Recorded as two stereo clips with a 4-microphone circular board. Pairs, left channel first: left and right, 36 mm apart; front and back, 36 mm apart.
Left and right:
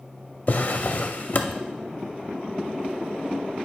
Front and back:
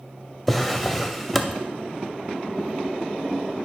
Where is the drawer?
85° left, 0.6 m.